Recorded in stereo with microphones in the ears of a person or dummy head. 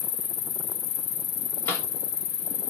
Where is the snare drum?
10° left (ahead or behind), 1.0 m.